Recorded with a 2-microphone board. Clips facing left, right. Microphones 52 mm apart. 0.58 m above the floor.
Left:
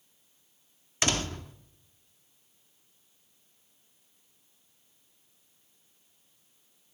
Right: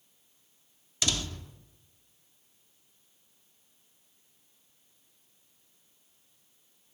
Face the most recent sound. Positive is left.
turn(degrees=45)  # may be behind; listen again after turning